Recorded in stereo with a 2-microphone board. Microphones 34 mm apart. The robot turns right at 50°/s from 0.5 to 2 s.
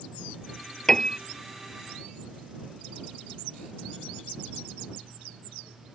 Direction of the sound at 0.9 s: 15° left (ahead or behind).